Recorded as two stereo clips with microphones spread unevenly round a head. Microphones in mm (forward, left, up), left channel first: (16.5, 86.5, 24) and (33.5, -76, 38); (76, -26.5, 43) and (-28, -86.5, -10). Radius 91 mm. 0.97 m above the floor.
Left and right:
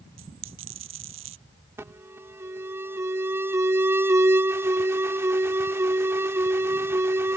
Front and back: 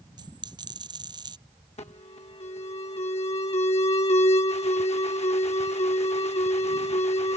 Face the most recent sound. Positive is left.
turn(degrees=-10)